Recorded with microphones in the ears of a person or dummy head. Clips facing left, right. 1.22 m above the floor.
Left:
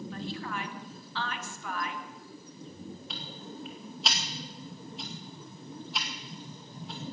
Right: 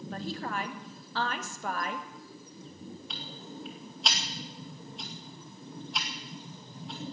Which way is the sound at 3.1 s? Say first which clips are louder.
Left 1 dB; 5° right (ahead or behind).